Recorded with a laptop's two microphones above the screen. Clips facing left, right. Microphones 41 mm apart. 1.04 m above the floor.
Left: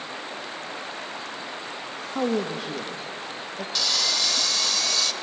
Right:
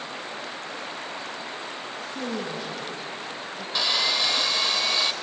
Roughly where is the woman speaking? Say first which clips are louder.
Left 7 dB; left.